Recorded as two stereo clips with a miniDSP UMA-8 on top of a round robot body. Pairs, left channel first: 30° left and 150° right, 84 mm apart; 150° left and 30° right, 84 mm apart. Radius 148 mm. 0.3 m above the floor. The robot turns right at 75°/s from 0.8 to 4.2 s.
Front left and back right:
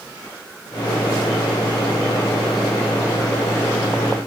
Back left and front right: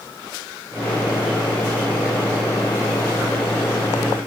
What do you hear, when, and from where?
Only background noise.